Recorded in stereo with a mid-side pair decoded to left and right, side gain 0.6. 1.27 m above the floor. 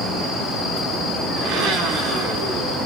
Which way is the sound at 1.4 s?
70° right.